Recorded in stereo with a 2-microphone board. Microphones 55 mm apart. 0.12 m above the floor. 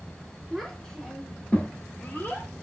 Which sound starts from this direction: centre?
A child speaking, at 0.5 s.